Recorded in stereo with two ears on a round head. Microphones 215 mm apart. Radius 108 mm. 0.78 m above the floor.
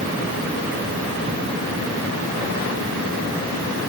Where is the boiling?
I don't hear boiling.